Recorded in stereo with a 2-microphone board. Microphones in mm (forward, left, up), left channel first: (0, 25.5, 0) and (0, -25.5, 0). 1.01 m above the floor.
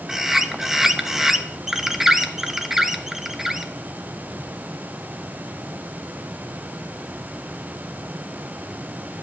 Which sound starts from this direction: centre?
A bird, at 0.1 s.